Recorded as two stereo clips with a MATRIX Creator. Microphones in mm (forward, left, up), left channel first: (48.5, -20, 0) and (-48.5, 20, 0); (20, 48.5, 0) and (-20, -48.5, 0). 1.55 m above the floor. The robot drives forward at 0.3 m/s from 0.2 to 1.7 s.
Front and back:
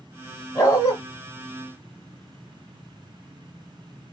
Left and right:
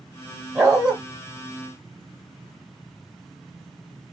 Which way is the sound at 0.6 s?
35° right.